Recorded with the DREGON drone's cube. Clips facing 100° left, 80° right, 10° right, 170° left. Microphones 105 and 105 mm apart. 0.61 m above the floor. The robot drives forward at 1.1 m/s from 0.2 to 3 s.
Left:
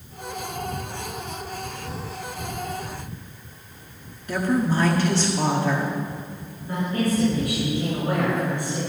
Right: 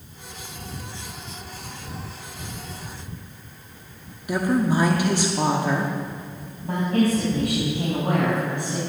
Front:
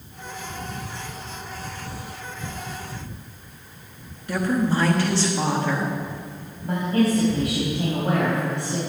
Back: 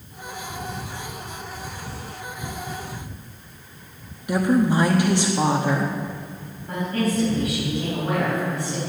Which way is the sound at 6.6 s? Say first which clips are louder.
Right 4 dB, front 3 dB; 70° right.